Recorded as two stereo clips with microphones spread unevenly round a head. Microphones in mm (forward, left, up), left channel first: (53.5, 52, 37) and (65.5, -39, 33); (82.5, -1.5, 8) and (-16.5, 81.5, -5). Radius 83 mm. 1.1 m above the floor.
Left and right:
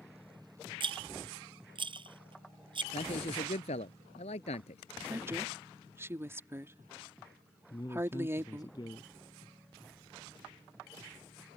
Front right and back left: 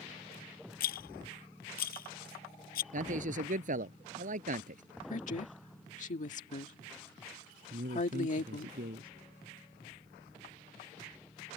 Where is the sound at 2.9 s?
125° left.